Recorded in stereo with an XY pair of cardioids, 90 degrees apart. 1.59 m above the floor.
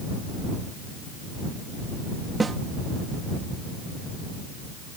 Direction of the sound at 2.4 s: 35° right.